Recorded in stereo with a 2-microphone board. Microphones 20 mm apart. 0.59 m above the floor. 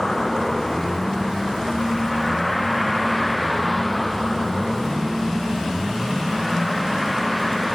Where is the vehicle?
25° left (ahead or behind); by 7.8 s 5° left (ahead or behind).